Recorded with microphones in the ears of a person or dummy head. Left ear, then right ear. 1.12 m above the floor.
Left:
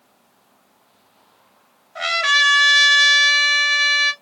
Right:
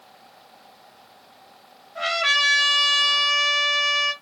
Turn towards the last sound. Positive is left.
turn(degrees=40)  # may be behind; listen again after turning